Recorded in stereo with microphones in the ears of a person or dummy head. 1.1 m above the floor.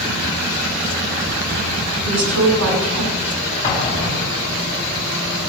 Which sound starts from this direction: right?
A woman speaking, at 2.0 s.